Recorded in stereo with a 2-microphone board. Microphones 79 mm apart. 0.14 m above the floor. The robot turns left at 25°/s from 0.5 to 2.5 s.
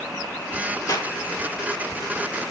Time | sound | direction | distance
0.9 | a clap | 50° left (ahead or behind) | 2 m